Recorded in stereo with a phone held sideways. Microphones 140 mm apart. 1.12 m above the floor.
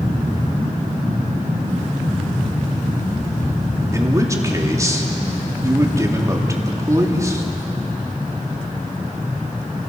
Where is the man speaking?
20° right (ahead or behind), 2.5 m.